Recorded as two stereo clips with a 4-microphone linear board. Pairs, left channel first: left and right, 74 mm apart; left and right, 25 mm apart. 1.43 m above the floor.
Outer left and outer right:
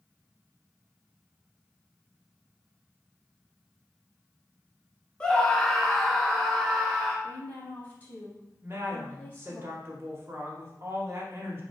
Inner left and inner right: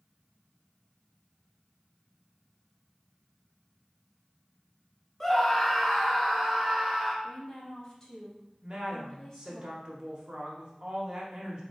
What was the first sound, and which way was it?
A scream, 15° left (ahead or behind).